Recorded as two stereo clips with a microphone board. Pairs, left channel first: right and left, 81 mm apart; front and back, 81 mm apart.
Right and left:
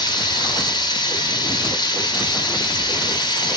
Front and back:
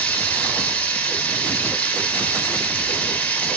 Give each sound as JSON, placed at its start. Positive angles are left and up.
{"t": 0.0, "sound": "running water", "azimuth_deg": -70, "distance_m": 0.9}